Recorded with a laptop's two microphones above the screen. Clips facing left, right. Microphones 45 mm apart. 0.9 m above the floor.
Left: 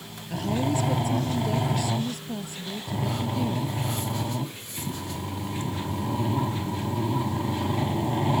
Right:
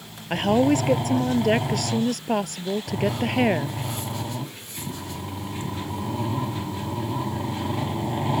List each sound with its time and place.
0.3 s a woman speaking: 60° right (ahead or behind); by 3.8 s 70° right (ahead or behind)